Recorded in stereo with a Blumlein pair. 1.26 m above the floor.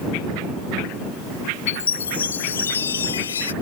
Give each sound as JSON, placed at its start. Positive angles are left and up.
{"t": 1.7, "sound": "a chime", "azimuth_deg": 70}